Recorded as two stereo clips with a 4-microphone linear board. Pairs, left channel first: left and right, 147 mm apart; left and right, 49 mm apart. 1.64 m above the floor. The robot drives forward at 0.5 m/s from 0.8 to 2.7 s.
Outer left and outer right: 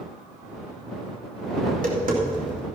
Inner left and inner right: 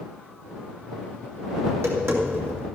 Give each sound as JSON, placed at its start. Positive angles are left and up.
{"t": 1.7, "sound": "tapping", "side_deg": -75, "distance_m": 2.5}